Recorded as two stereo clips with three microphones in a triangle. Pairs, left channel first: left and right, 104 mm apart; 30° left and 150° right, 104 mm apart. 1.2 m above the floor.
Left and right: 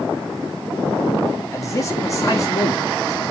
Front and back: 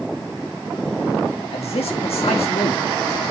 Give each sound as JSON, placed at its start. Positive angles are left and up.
{"t": 1.5, "sound": "a man speaking", "azimuth_deg": 35, "distance_m": 2.5}